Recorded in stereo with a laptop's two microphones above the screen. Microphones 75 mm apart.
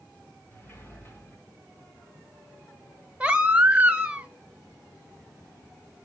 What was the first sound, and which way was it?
A sliding door, 30° left (ahead or behind).